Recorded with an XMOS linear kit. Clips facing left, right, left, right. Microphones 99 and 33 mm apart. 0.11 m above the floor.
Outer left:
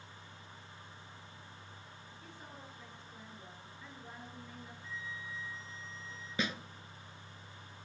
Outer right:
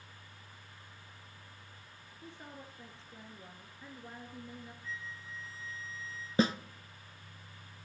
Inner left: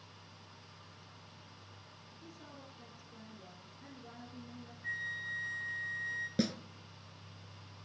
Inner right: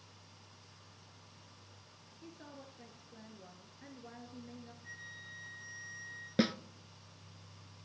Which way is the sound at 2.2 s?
25° right (ahead or behind).